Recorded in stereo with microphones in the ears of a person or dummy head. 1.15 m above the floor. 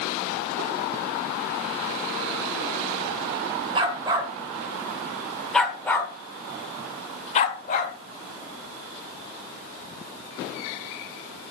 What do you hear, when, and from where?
3.8 s a dog barking: 30° right (ahead or behind), 1.8 m; by 8.0 s 45° left (ahead or behind), 1.7 m